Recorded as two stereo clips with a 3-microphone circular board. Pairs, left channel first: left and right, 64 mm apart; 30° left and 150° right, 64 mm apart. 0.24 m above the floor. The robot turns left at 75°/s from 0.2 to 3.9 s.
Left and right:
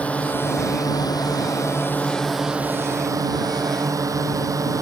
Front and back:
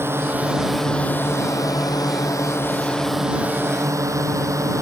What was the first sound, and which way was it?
A drone, 160° left.